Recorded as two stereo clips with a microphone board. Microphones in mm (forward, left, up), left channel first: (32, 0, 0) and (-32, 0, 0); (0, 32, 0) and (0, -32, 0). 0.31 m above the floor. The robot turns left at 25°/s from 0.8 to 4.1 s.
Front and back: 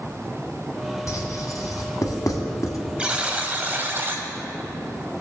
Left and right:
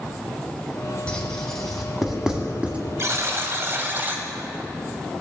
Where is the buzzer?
110° right, 1.1 m; by 4.2 s 140° right, 1.1 m.